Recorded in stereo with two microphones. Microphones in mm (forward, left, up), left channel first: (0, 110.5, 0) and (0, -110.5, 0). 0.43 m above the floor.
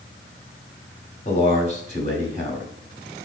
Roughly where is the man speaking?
Left.